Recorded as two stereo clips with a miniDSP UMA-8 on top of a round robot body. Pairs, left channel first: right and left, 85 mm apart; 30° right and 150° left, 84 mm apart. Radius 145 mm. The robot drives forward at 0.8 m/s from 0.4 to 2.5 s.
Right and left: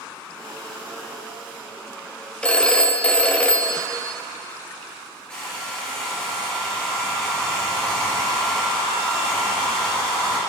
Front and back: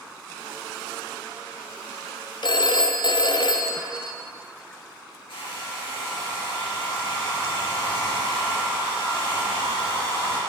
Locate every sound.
2.4 s a phone ringing: 10° right, 1.0 m; by 4.2 s 15° right, 0.9 m
5.3 s a hair dryer: 10° right, 5 m